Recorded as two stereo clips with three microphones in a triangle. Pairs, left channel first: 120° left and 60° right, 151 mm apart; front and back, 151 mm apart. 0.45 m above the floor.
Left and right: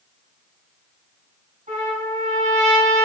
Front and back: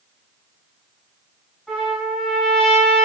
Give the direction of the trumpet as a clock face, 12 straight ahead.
3 o'clock.